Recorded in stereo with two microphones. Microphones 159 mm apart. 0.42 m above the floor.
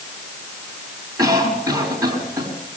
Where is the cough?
20° right (ahead or behind), 5 m.